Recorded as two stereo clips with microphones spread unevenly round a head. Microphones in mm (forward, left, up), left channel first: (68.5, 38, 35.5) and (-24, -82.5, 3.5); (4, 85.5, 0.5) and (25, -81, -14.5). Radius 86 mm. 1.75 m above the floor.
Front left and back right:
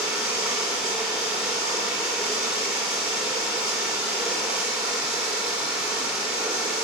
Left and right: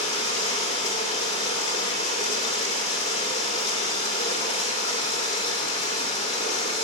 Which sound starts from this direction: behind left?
Running water, at 0.0 s.